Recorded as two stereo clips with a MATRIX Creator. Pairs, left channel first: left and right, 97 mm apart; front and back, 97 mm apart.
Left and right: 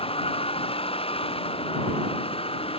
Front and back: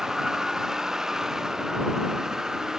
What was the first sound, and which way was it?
A vehicle, 95° left.